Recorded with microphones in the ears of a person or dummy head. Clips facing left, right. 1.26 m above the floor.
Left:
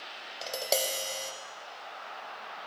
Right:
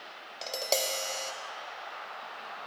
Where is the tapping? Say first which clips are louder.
Left 1 dB; 10° left (ahead or behind), 0.7 m.